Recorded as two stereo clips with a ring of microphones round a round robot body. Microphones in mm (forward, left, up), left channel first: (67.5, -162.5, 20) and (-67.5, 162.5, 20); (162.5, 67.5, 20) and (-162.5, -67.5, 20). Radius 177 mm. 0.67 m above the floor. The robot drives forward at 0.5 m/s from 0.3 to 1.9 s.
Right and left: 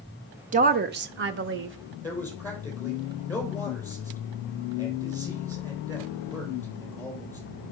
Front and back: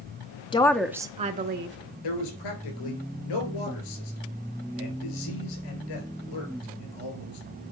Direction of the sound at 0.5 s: 80° left.